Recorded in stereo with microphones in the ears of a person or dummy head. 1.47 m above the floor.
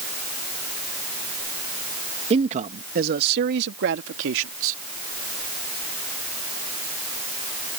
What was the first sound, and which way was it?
A man speaking, 35° right (ahead or behind).